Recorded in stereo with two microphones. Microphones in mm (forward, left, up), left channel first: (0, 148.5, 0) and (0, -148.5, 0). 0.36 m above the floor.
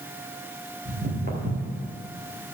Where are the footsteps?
30° right (ahead or behind), 3 m.